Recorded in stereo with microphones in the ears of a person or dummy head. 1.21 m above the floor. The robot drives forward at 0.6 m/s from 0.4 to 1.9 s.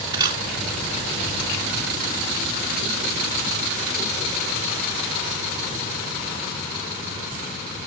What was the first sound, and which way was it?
A camera shutter, 25° right (ahead or behind).